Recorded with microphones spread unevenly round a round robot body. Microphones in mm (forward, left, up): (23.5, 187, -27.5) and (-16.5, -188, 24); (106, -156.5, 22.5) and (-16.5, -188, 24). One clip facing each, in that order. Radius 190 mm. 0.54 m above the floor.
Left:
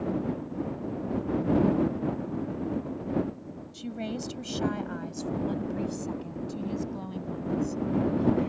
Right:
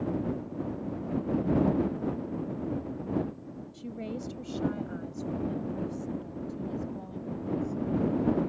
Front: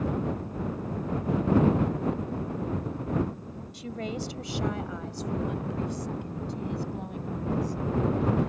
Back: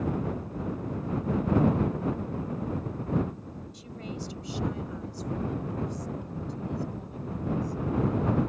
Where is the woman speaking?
15° left; by 8.5 s 45° left.